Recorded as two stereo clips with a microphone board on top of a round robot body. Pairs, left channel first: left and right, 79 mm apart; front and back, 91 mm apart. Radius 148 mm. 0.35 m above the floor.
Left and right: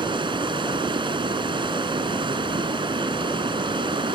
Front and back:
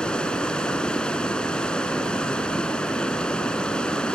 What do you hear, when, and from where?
0.0 s running water: 80° right